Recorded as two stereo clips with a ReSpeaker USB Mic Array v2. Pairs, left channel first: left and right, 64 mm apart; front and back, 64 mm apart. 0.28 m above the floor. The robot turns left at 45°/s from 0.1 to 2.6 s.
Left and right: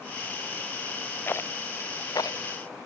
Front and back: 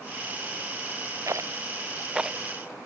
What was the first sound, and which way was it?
A rattle, 145° left.